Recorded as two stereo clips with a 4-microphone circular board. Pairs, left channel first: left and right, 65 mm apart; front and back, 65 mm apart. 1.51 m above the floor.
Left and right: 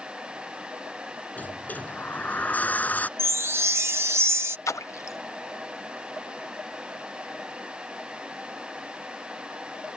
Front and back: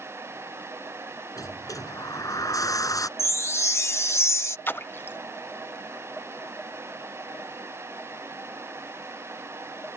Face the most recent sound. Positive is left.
turn(degrees=55)